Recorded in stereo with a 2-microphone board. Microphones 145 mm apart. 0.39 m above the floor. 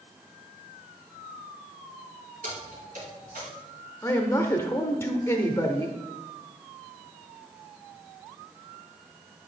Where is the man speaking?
20° left (ahead or behind), 0.8 m.